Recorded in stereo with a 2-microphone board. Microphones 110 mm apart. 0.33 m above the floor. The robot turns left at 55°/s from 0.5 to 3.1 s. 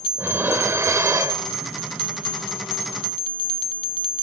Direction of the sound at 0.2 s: 20° right (ahead or behind).